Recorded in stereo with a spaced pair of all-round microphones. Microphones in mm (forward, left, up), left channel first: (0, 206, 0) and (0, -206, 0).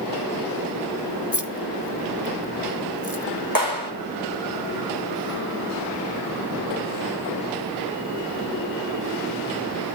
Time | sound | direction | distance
1.3 | keys jangling | 45° left (ahead or behind) | 1.5 m
3.5 | a clap | 55° right (ahead or behind) | 6 m